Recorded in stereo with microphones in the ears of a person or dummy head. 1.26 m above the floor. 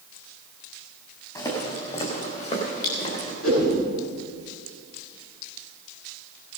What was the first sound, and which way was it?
Footsteps, 25° left (ahead or behind).